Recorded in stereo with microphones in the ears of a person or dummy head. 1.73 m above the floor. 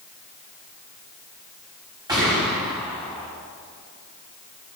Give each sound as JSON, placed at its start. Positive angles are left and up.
{"t": 2.1, "sound": "a gunshot", "side_deg": -20, "distance_m": 5.5}